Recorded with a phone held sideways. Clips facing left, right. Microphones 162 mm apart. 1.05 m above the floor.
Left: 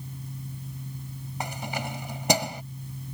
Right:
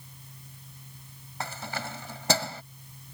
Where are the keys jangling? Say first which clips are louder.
Left 3 dB; 15° left (ahead or behind).